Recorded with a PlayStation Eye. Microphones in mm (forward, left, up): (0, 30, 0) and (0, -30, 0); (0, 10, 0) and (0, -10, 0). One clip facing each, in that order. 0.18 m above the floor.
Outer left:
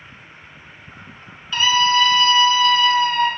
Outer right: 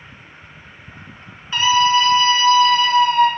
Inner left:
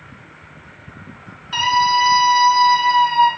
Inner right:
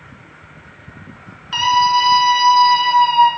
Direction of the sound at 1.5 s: 25° right (ahead or behind).